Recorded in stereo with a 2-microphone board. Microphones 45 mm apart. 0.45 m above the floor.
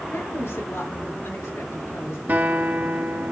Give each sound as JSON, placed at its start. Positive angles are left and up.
{"t": 0.1, "sound": "a woman speaking", "side_deg": 75, "distance_m": 5.5}
{"t": 2.3, "sound": "a guitar", "side_deg": -50, "distance_m": 1.7}